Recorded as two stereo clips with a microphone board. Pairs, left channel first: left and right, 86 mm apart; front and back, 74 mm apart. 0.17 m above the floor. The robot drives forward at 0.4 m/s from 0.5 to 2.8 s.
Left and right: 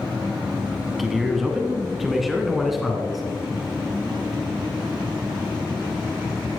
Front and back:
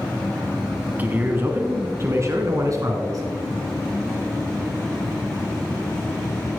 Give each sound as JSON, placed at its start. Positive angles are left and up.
{"t": 1.0, "sound": "a man speaking", "azimuth_deg": -175, "distance_m": 1.3}